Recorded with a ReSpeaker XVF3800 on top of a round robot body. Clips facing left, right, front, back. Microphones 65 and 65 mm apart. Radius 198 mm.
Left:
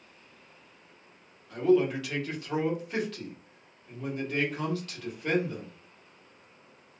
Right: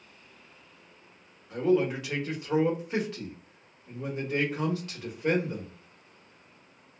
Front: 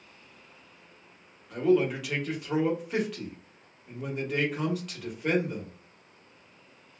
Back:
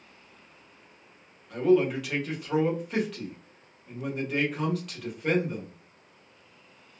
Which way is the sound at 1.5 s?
85° right.